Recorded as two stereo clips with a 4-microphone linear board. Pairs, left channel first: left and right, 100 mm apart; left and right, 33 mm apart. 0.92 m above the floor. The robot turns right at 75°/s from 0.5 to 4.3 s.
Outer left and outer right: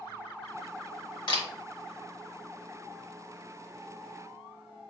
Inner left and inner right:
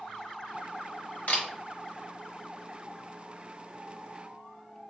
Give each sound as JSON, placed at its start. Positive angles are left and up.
{"t": 1.3, "sound": "a camera shutter", "side_deg": 50, "distance_m": 1.0}